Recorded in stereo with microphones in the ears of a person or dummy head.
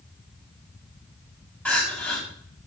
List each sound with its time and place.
1.6 s crying: 5° left (ahead or behind), 3 m